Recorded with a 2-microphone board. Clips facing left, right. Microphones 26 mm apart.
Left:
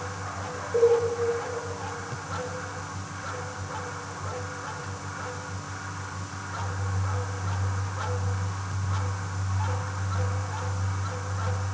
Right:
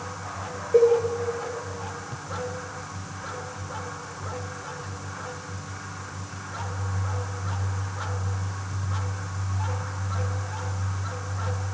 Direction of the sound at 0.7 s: 70° right (ahead or behind).